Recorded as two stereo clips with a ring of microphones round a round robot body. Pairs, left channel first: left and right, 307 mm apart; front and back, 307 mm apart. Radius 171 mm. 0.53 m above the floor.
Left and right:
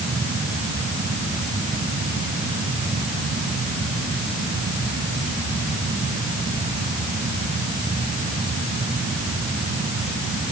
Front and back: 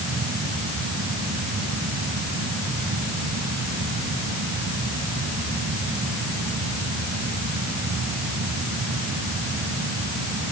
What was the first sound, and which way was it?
Only background noise.